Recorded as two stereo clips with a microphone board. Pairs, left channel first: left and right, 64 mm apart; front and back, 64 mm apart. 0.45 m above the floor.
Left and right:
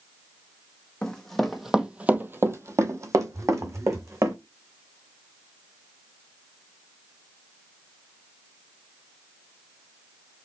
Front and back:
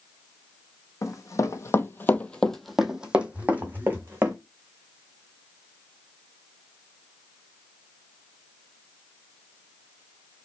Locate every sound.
1.0 s running footsteps: 15° left, 0.8 m; by 4.3 s 125° right, 1.3 m
3.3 s a phone buzzing: 120° right, 2.5 m